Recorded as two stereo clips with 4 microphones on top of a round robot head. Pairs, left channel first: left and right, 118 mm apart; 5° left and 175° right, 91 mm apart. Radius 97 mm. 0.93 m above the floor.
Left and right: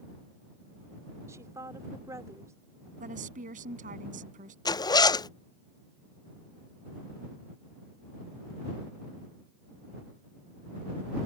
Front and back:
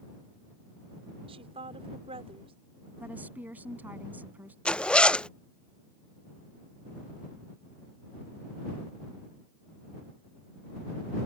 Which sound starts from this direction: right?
A woman speaking, at 3.0 s.